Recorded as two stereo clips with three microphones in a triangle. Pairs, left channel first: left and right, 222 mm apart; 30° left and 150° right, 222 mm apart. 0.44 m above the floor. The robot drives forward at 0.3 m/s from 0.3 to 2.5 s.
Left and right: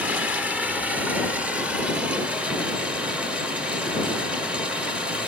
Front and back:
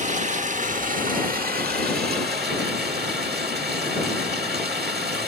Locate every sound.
0.0 s running water: 170° right, 1.2 m; by 5.3 s 175° right, 1.6 m